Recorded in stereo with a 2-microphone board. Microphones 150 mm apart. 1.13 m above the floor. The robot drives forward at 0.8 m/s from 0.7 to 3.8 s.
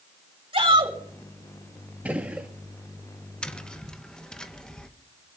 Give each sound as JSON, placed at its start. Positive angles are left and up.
{"t": 0.5, "sound": "a shout", "side_deg": -30, "distance_m": 5.5}
{"t": 2.0, "sound": "a gunshot", "side_deg": -10, "distance_m": 1.4}
{"t": 3.4, "sound": "tapping", "side_deg": 5, "distance_m": 0.8}